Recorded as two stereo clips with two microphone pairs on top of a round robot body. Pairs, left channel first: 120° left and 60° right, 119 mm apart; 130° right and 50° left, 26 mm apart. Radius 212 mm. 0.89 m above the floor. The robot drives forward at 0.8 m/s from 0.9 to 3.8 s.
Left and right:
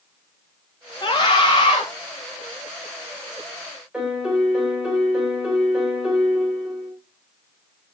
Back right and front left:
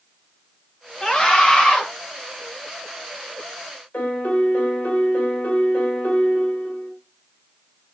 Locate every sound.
1.0 s a scream: 170° left, 1.8 m; by 1.8 s 175° left, 2.5 m
3.9 s a piano: 145° right, 2 m